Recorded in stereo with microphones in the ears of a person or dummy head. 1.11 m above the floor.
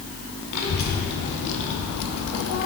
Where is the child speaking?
60° left (ahead or behind), 2.0 m; by 2.7 s 35° left (ahead or behind), 0.7 m.